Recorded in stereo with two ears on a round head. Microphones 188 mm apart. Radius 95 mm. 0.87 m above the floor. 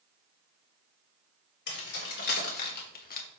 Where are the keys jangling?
55° left (ahead or behind), 3.5 m; by 3.3 s 45° left (ahead or behind), 1.2 m.